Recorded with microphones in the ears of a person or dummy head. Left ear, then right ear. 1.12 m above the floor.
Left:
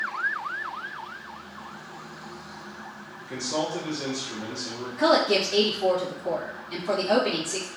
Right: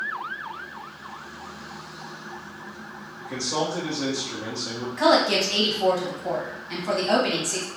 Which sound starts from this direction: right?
A woman speaking, at 5.0 s.